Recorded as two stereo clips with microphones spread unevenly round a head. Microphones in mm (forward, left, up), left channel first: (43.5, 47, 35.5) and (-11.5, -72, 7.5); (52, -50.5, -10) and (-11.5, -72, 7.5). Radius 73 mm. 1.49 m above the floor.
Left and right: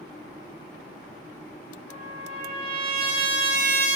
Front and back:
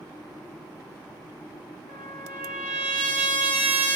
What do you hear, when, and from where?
1.9 s a trumpet: 120° right, 1.6 m